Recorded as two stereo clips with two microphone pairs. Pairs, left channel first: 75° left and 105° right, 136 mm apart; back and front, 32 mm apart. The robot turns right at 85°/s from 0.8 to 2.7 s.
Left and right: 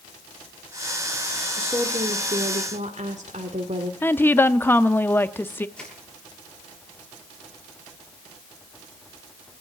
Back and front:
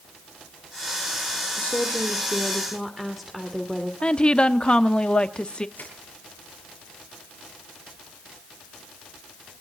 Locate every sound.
1.6 s a woman speaking: 175° left, 2.5 m; by 3.9 s 90° right, 2.5 m
4.0 s a woman speaking: 140° left, 1.1 m
5.8 s crushing: 160° left, 8 m